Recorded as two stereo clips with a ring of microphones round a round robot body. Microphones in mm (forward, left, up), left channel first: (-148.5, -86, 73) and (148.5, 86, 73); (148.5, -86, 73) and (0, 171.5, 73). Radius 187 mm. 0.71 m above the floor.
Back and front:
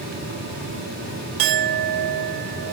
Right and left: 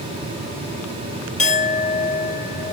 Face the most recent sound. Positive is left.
turn(degrees=10)